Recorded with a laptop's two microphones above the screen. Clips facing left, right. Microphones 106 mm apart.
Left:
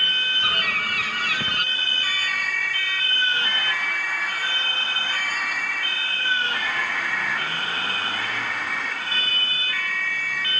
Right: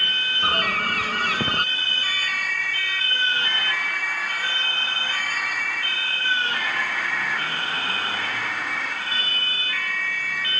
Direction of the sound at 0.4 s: 35° right (ahead or behind).